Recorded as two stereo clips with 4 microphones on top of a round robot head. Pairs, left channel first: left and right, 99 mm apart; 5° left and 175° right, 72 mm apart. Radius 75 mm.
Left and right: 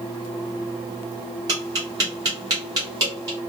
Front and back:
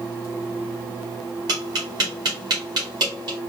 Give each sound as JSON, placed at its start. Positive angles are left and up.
{"t": 1.5, "sound": "tapping", "azimuth_deg": -145, "distance_m": 1.9}